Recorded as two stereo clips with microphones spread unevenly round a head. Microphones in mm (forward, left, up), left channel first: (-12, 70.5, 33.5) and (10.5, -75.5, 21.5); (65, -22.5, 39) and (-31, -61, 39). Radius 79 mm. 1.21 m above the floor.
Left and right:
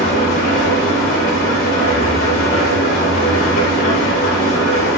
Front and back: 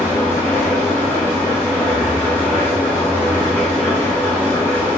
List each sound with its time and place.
0.0 s an engine running: 90° left, 3 m